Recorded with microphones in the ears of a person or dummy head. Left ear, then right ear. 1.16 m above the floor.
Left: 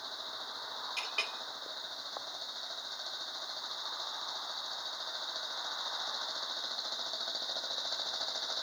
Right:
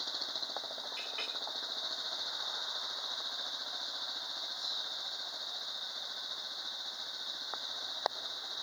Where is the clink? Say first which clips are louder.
Left 5 dB; 30° left (ahead or behind), 2 m.